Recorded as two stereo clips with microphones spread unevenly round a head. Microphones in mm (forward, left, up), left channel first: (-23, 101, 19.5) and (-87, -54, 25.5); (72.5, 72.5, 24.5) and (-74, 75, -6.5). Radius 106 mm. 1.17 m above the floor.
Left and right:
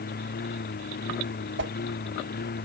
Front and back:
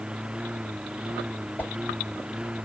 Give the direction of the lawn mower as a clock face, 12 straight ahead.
9 o'clock.